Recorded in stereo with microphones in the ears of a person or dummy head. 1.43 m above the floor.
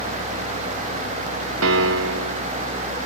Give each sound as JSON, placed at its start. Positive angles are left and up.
{"t": 1.6, "sound": "a piano", "side_deg": -90}